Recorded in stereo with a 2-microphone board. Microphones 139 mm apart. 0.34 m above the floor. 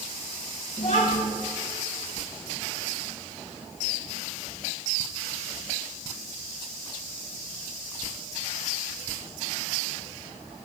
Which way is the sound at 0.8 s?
75° left (ahead or behind).